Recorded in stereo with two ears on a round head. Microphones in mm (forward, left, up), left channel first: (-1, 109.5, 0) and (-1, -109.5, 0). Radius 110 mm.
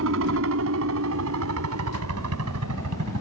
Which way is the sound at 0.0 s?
60° right (ahead or behind).